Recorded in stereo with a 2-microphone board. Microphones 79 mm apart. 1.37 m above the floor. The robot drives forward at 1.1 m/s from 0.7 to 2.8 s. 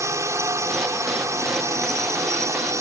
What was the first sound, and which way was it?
A drone, 35° right (ahead or behind).